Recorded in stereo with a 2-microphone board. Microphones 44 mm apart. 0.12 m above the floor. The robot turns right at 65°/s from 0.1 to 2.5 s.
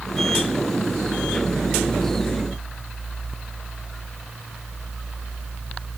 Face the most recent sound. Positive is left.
No sound to turn to.